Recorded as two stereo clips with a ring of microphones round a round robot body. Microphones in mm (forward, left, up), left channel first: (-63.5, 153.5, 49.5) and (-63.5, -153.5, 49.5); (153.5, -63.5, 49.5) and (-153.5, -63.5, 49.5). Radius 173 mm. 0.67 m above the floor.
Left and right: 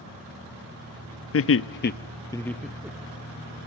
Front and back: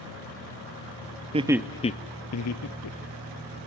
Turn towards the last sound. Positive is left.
turn(degrees=-10)